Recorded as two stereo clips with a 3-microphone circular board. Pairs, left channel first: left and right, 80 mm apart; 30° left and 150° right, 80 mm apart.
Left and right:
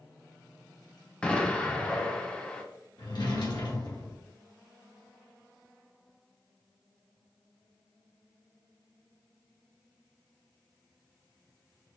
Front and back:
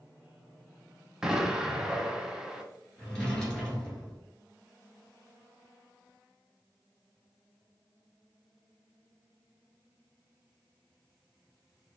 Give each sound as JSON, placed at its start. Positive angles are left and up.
{"t": 1.2, "sound": "an explosion", "azimuth_deg": 140, "distance_m": 0.6}
{"t": 3.0, "sound": "a drawer", "azimuth_deg": 110, "distance_m": 1.3}